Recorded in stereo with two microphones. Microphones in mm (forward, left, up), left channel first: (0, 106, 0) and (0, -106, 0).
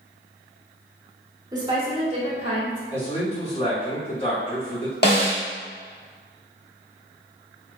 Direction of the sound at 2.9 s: 30° left (ahead or behind).